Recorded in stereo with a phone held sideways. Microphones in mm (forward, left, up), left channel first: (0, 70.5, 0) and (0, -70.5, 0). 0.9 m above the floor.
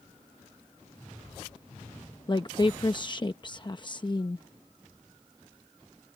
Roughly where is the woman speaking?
Left.